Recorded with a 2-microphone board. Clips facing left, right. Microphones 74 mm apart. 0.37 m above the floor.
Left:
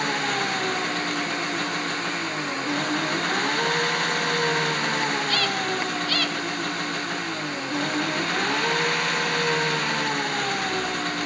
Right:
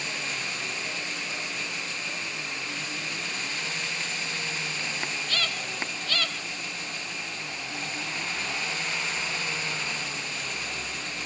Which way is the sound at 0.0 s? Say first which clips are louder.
Left 10 dB; 60° left (ahead or behind).